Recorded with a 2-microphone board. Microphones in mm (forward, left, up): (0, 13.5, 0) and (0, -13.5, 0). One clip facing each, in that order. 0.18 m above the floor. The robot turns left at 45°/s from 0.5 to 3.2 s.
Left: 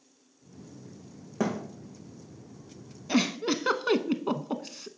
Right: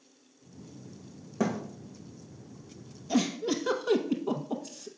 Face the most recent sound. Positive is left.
turn(degrees=50)  # may be behind; listen again after turning